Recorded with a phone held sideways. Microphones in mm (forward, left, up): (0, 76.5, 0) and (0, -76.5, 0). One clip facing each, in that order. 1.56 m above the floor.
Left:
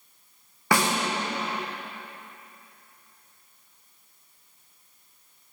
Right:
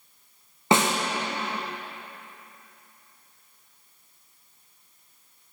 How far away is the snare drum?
About 0.6 m.